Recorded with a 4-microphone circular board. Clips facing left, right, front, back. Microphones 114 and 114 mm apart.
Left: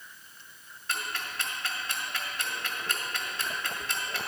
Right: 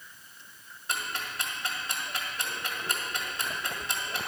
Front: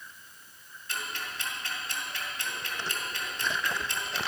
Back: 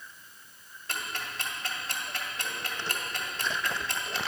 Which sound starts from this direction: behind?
Ticking, at 0.9 s.